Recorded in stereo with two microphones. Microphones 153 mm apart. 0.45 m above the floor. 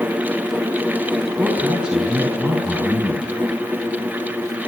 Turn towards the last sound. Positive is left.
turn(degrees=-5)  # may be behind; listen again after turning